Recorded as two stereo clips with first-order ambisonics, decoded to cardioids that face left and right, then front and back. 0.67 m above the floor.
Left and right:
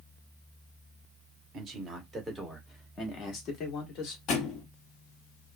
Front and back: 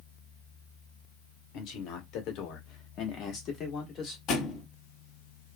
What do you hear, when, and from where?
1.5 s a man speaking: 25° right, 1.1 m; by 4.2 s 65° left, 1.3 m
4.3 s a thud: 50° left, 0.9 m